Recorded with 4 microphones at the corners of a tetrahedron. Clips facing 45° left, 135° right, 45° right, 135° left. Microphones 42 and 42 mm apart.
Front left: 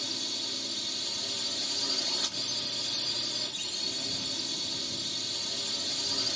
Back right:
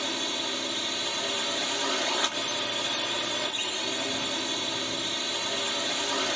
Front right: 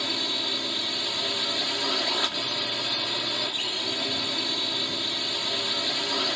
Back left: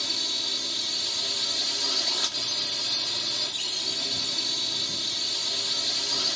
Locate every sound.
0.0 s a drone: 105° right